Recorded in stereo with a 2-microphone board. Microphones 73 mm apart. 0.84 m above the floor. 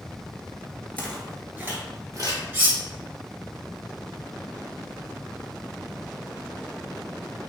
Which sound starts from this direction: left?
Footsteps, at 1.0 s.